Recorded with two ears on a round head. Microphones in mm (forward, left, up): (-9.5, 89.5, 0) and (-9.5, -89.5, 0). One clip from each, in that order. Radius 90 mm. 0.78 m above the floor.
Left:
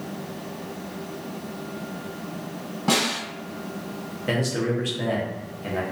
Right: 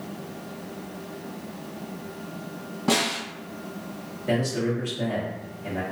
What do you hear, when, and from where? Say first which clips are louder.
2.9 s a snare drum: left 1 dB; 5° left (ahead or behind), 1.3 m
4.3 s a man speaking: left 1 dB; 35° left (ahead or behind), 0.8 m